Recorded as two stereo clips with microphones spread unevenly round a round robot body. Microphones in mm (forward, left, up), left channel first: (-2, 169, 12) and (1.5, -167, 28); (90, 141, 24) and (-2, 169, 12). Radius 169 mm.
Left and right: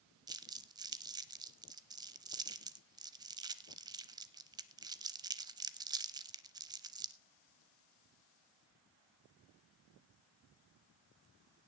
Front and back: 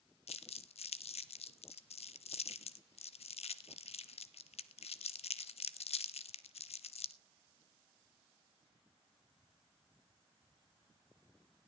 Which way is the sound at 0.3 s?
10° right.